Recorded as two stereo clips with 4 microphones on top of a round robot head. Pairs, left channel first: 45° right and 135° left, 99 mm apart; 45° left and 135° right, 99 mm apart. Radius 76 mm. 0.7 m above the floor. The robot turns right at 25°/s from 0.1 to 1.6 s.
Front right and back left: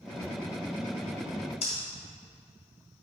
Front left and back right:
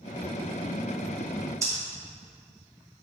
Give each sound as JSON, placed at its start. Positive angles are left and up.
{"t": 1.6, "sound": "breathing", "azimuth_deg": -75, "distance_m": 3.0}